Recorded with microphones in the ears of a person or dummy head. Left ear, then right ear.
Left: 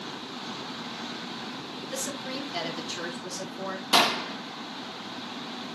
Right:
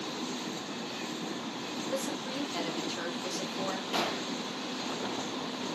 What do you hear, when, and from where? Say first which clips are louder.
1.9 s a woman speaking: left 2 dB; 15° left (ahead or behind), 3.5 m; by 3.8 s 10° right (ahead or behind), 2 m
3.9 s a gunshot: left 12 dB; 55° left (ahead or behind), 0.9 m